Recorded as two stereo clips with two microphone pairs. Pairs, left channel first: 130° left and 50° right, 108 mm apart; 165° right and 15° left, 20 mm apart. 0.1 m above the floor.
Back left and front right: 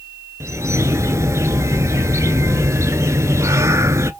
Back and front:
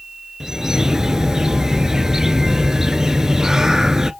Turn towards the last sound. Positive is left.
turn(degrees=-15)